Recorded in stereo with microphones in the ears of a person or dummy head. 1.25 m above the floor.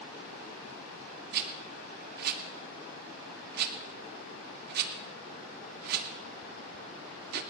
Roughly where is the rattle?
Right.